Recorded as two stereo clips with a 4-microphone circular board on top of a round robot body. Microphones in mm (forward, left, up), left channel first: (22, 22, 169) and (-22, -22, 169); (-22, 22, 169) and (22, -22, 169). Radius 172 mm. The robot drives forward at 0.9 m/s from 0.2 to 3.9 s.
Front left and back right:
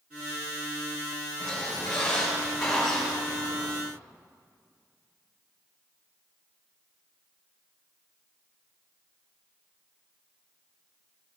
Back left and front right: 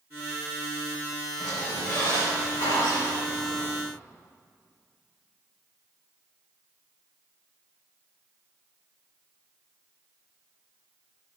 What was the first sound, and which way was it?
A squeak, 100° left.